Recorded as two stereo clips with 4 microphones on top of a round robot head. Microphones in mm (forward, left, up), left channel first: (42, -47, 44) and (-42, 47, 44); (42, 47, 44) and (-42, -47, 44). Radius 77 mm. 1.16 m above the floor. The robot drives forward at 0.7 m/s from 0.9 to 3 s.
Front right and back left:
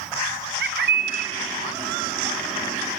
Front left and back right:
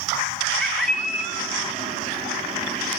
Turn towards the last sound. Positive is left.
turn(degrees=170)